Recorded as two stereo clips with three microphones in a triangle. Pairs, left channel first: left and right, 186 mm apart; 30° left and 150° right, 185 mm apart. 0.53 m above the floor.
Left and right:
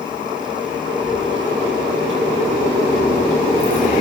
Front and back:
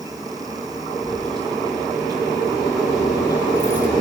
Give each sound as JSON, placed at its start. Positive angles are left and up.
{"t": 1.0, "sound": "keys jangling", "azimuth_deg": -85, "distance_m": 7.5}